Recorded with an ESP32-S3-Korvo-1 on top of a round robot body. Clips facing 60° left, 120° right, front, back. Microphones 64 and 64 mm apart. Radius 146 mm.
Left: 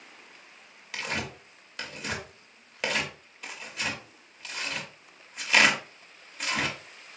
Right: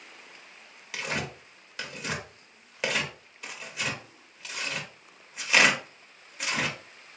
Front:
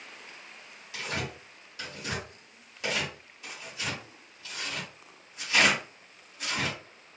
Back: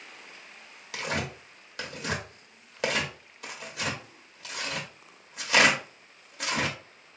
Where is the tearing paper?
150° left, 0.8 m.